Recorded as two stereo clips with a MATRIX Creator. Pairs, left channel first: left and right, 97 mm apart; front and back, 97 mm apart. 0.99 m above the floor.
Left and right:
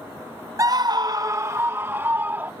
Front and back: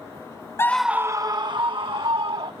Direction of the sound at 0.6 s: 50° right.